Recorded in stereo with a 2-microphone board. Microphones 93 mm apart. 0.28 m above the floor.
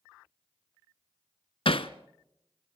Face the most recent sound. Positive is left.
turn(degrees=75)  # may be behind; listen again after turning